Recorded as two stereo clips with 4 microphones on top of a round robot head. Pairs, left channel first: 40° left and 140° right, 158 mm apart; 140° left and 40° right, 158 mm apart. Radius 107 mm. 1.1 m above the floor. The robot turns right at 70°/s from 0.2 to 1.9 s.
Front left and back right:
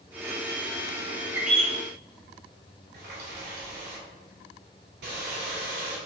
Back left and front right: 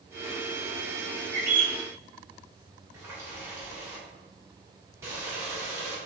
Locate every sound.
1.3 s a bird: 65° right, 0.6 m; by 1.8 s 35° right, 0.6 m
2.9 s a running tap: 115° right, 1.6 m